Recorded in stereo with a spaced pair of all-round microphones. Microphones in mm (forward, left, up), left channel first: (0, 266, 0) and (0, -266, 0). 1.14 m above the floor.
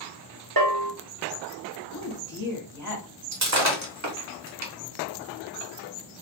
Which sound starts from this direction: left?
A woman speaking, at 1.9 s.